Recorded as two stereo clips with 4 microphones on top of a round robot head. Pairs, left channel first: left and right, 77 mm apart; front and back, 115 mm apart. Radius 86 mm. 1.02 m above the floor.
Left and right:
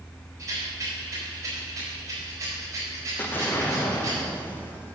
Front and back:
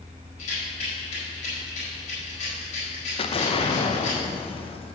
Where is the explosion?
25° left, 0.9 m.